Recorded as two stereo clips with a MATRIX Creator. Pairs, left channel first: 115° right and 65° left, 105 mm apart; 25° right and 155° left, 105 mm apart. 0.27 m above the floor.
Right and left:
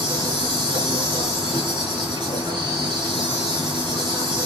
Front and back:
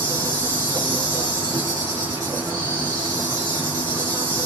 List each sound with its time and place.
0.0 s an insect: 110° left, 4.5 m